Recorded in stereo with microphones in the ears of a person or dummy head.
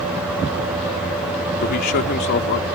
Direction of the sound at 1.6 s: 50° left (ahead or behind).